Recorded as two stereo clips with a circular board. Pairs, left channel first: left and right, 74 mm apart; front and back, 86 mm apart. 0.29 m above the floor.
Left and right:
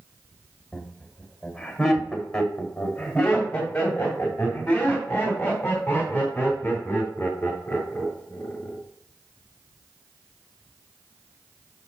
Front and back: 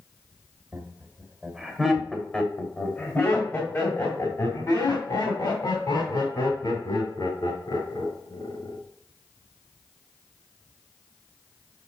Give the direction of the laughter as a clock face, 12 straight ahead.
6 o'clock.